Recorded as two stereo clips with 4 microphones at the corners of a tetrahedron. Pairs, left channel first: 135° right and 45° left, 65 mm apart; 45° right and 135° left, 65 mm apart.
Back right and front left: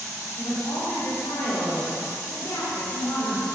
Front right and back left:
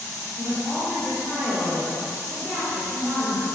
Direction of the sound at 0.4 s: 120° right.